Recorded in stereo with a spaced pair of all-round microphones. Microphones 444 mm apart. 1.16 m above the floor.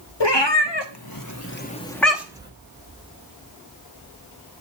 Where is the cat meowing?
65° left (ahead or behind), 1.3 m; by 2.5 s 10° right (ahead or behind), 1.4 m.